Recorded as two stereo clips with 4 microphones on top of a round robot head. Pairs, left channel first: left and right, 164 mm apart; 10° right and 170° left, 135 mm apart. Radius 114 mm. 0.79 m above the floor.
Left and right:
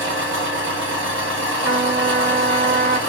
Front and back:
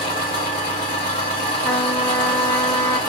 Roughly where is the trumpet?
Right.